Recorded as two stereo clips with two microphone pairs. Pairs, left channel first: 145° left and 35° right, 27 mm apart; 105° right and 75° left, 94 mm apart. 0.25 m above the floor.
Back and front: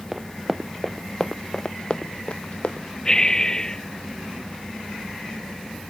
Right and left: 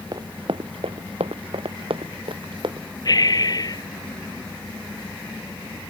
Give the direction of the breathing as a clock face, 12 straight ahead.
5 o'clock.